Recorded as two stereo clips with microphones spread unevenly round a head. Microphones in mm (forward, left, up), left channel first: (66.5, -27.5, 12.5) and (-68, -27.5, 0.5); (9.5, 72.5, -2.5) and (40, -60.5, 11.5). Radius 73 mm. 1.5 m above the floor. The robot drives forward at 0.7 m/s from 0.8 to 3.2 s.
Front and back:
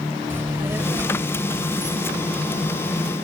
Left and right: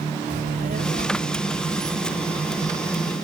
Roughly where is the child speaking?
Right.